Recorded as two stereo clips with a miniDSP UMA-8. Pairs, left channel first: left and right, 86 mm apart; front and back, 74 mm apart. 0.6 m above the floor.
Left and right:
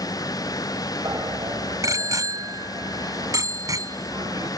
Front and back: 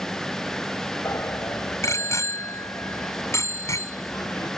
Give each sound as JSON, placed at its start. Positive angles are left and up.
{"t": 1.1, "sound": "a bicycle bell", "azimuth_deg": -45}